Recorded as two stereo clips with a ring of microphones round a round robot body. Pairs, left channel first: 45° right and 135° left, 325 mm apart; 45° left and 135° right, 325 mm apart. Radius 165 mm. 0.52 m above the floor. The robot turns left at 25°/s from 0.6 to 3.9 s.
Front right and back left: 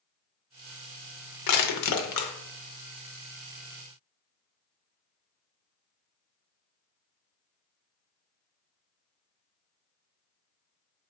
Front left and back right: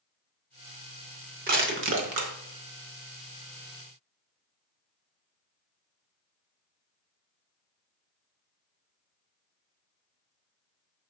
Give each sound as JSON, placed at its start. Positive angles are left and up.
{"t": 1.5, "sound": "crushing", "azimuth_deg": -70, "distance_m": 0.7}